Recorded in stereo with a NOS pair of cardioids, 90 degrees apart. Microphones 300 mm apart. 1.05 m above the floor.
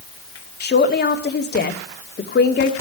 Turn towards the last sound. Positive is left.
turn(degrees=35)